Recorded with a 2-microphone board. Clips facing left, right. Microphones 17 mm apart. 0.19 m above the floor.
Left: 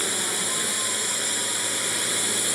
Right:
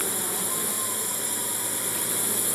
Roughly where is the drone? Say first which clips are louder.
Left 4 dB; left.